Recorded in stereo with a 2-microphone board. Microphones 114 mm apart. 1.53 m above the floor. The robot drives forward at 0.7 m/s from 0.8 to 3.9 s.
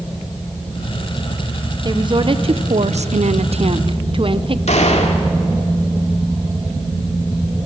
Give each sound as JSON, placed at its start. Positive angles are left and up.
{"t": 1.9, "sound": "a woman speaking", "side_deg": -40, "distance_m": 1.1}
{"t": 4.7, "sound": "a gunshot", "side_deg": 80, "distance_m": 2.5}